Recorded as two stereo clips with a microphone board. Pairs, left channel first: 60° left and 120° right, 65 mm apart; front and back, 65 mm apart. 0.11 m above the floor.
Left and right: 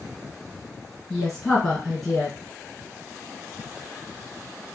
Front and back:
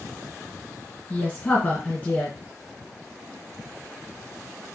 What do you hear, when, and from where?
1.1 s a woman speaking: 30° right, 1.7 m